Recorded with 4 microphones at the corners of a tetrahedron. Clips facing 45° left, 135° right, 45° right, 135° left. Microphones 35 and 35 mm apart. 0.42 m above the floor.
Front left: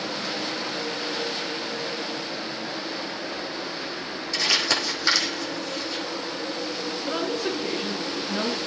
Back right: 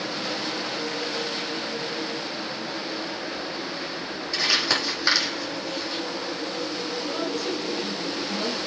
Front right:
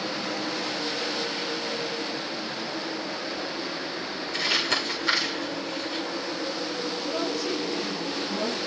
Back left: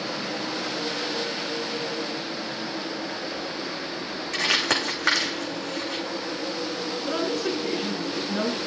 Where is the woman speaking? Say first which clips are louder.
Front left 3 dB, back left 3 dB; 95° left, 5 m.